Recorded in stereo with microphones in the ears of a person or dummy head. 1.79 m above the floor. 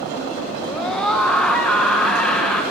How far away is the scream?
About 1.2 m.